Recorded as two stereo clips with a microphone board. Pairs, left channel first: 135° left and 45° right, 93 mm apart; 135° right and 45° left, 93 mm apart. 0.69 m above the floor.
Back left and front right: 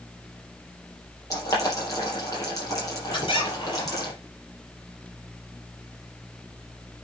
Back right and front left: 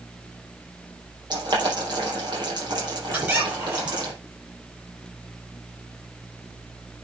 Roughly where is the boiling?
Left.